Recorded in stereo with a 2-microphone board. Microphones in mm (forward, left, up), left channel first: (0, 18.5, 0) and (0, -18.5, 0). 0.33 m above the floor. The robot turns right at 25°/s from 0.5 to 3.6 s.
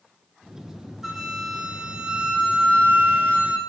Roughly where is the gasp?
I don't hear a gasp.